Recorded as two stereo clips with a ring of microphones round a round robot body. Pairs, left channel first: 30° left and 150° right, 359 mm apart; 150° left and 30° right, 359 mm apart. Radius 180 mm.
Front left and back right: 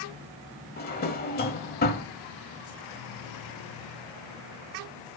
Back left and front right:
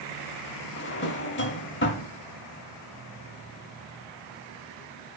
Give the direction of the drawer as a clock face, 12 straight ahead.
9 o'clock.